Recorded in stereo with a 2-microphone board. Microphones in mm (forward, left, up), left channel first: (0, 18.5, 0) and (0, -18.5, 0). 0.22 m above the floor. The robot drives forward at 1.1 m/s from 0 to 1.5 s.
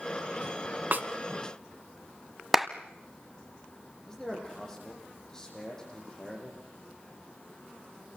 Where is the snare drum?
55° right (ahead or behind), 1.1 m.